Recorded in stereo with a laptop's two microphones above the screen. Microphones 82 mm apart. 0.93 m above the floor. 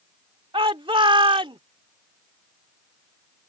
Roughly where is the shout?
Right.